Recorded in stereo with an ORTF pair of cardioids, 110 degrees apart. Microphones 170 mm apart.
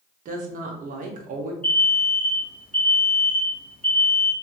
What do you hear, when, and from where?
0.2 s a woman speaking: 55° right, 0.9 m
1.6 s an alarm: 5° left, 1.1 m